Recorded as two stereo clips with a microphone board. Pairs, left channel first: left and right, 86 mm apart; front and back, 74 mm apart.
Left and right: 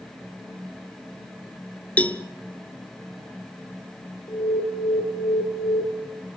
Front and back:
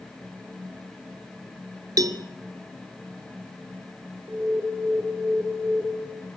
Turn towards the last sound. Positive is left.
turn(degrees=130)